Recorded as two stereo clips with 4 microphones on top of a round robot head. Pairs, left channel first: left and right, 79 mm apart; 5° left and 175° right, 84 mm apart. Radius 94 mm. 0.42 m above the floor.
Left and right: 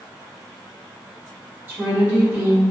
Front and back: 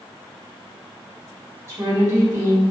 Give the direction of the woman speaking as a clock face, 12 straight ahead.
5 o'clock.